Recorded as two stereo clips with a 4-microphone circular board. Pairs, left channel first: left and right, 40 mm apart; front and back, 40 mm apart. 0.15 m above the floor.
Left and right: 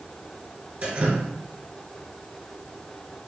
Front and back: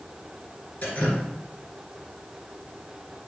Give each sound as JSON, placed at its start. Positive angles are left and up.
{"t": 0.8, "sound": "dripping", "azimuth_deg": -40, "distance_m": 2.5}